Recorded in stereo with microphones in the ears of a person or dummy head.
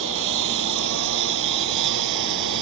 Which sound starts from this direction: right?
A lawn mower, at 0.0 s.